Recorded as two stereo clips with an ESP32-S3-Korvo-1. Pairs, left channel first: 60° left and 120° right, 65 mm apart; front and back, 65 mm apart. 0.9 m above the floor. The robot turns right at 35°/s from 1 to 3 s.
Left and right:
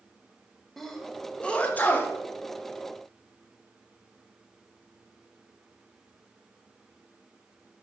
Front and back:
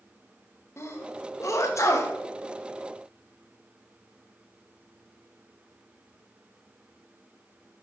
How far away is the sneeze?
About 1.2 m.